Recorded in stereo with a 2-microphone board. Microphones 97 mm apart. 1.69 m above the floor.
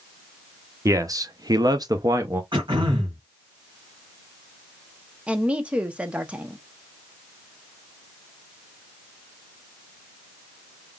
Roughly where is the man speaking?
Right.